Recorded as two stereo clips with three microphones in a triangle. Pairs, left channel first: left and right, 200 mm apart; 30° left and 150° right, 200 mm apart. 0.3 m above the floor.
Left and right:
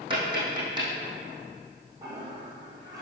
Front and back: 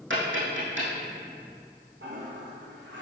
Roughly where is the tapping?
Behind right.